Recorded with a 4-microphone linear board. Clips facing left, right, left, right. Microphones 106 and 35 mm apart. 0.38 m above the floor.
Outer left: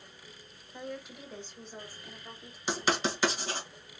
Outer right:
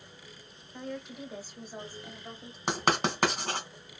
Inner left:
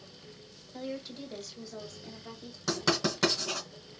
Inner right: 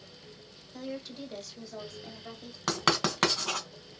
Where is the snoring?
I don't hear snoring.